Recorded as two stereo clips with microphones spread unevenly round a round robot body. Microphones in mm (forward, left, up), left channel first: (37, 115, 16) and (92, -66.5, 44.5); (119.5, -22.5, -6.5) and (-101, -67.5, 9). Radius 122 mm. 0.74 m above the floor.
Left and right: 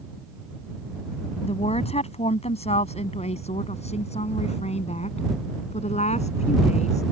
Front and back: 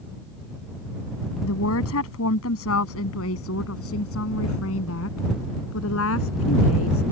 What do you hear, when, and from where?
1.4 s a woman speaking: 50° left